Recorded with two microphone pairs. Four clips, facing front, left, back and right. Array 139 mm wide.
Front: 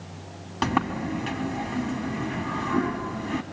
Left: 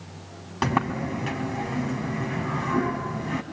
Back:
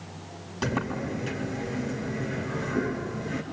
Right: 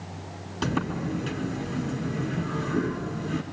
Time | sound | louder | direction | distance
0.6 | a sliding door | left 3 dB, front 4 dB | 50° left | 2.5 m